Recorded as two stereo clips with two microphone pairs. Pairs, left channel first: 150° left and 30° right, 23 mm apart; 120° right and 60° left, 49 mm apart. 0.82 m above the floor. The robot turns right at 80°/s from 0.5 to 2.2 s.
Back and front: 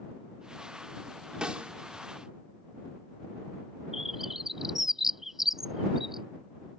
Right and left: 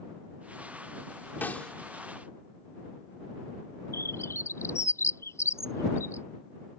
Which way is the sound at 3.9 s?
100° right.